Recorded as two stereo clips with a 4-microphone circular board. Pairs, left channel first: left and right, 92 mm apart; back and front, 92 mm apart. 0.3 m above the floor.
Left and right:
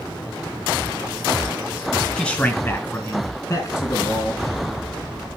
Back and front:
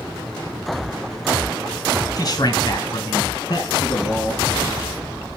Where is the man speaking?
165° left, 1.4 m; by 4.4 s 135° left, 4 m.